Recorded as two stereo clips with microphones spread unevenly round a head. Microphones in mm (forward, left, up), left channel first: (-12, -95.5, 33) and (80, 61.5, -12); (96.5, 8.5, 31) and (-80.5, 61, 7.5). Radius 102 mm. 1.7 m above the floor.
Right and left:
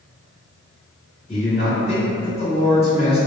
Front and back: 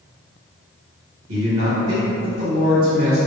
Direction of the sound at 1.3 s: 175° right.